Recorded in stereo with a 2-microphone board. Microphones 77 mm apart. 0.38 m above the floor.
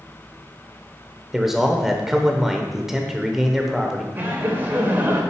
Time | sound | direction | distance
1.3 | a man speaking | 5° right (ahead or behind) | 0.8 m
4.2 | laughter | 25° right (ahead or behind) | 1.4 m